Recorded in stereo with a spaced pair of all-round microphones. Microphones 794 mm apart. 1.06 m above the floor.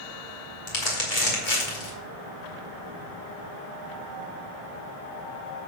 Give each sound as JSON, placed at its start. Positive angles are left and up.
{"t": 0.7, "sound": "crumpling", "side_deg": 75, "distance_m": 3.0}